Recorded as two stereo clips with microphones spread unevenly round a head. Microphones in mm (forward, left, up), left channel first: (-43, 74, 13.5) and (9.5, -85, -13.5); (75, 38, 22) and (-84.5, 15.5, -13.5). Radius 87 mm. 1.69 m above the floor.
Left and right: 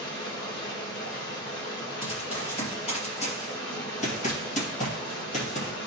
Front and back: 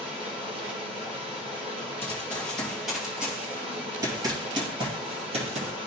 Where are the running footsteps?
70° left, 2.5 m; by 5.7 s 135° left, 2.5 m.